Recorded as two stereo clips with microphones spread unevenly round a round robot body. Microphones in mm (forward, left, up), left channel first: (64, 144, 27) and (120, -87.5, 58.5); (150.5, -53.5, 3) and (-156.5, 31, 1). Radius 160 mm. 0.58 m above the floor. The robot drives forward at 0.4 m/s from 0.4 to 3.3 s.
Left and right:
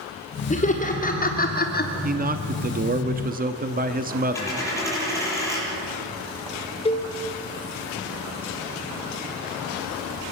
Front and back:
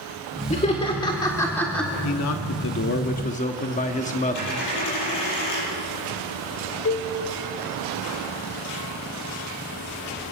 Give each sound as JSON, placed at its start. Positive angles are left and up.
{"t": 0.5, "sound": "laughter", "azimuth_deg": 55, "distance_m": 1.8}
{"t": 2.0, "sound": "a man speaking", "azimuth_deg": -25, "distance_m": 1.1}
{"t": 4.3, "sound": "a dropped coin", "azimuth_deg": 25, "distance_m": 9.5}
{"t": 6.8, "sound": "a cowbell", "azimuth_deg": 40, "distance_m": 1.9}